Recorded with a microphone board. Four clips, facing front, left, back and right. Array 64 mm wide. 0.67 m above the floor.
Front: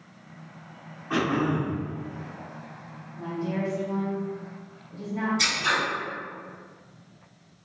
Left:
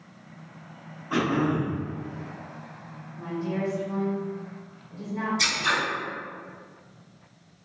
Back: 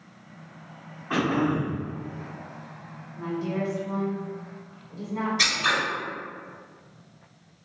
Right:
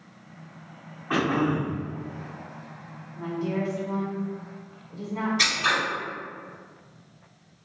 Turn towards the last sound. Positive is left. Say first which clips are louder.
# right 2 dB, back 4 dB
turn(degrees=-125)